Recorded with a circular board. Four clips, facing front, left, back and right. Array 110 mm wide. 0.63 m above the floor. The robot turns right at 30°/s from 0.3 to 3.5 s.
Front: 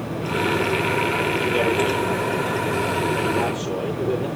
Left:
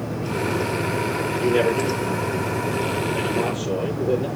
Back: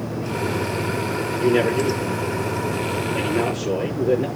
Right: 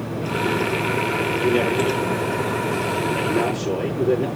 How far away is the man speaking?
About 9.5 m.